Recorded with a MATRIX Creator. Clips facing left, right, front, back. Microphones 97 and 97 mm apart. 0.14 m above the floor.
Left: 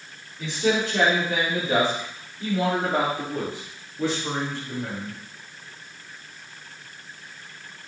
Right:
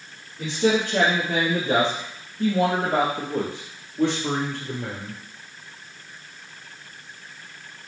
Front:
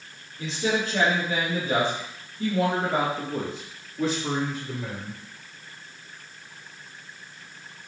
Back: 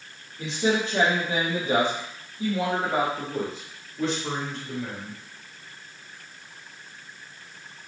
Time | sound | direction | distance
0.4 | a man speaking | 120° right | 4.5 m